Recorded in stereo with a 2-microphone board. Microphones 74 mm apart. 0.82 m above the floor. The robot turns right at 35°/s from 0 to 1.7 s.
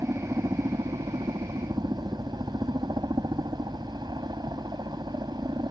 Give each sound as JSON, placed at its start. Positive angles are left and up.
{"t": 0.0, "sound": "a helicopter", "azimuth_deg": -140}